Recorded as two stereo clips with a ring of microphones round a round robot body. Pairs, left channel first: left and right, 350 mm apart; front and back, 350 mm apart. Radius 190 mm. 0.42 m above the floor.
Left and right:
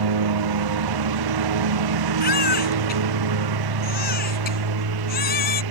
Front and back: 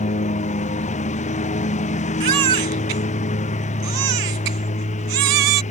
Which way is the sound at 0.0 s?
75° right.